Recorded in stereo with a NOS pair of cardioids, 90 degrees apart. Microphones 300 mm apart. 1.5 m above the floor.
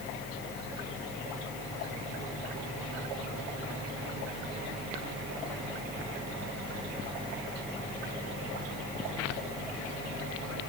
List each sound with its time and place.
Only background noise.